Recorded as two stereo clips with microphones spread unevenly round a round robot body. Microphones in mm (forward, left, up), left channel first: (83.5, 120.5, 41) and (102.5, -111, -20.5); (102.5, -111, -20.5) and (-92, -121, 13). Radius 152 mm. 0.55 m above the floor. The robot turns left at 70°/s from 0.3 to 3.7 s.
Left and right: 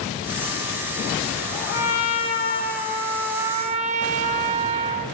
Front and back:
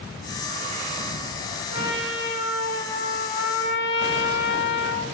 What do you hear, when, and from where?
1.7 s a trumpet: 120° left, 0.8 m; by 5.0 s 20° right, 0.8 m